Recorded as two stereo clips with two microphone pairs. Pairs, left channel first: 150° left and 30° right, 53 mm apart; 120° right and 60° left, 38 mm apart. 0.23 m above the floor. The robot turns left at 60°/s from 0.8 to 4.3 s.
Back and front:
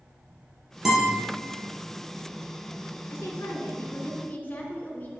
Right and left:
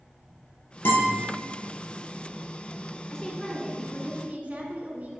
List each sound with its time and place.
0.8 s a guitar: 110° right, 3.5 m; by 1.2 s 130° right, 3.5 m
3.1 s a woman speaking: 170° left, 2 m; by 5.2 s 100° left, 2 m